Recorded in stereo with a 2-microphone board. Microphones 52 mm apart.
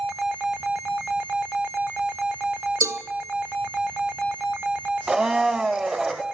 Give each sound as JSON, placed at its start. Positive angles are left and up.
{"t": 2.8, "sound": "a cowbell", "side_deg": -70, "distance_m": 0.6}
{"t": 5.1, "sound": "a blender", "side_deg": -15, "distance_m": 0.6}